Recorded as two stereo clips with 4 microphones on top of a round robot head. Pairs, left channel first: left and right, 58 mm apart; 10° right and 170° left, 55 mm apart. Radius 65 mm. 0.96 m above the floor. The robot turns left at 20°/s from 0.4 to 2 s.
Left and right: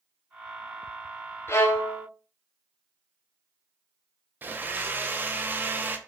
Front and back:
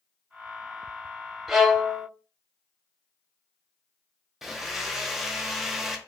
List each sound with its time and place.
1.5 s a violin: 95° left, 0.7 m; by 2.1 s 85° left, 0.7 m
4.4 s a blender: 105° right, 0.5 m